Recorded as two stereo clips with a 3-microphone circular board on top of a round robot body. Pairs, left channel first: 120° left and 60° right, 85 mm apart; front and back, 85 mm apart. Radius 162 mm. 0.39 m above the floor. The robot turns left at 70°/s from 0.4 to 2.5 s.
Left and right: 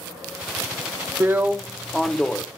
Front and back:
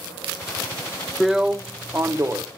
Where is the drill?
95° right, 1.0 m; by 2.4 s straight behind, 1.0 m.